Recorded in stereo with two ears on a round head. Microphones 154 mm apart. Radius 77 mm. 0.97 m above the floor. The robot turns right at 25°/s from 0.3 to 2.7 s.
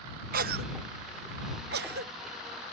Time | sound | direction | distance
0.3 | a cough | 55° right (ahead or behind) | ?